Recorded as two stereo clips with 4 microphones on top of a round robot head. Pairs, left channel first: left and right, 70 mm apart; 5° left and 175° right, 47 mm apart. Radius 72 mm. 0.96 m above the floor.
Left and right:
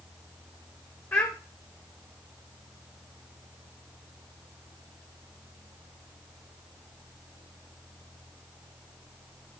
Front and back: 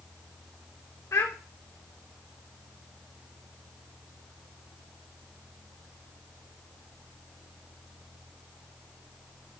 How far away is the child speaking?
About 1.3 m.